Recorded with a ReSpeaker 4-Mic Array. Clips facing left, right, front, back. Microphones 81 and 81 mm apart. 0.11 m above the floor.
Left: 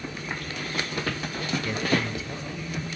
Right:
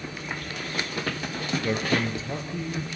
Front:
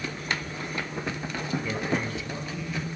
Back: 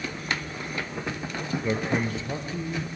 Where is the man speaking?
140° right, 1.7 m; by 2.9 s 135° right, 2.5 m.